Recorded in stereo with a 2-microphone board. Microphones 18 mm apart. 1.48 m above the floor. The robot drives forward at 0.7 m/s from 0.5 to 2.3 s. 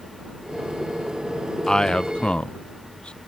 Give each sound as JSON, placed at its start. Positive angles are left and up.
{"t": 1.7, "sound": "a man speaking", "side_deg": 35}